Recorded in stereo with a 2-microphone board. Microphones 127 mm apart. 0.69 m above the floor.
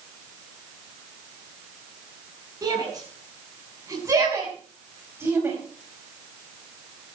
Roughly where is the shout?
Right.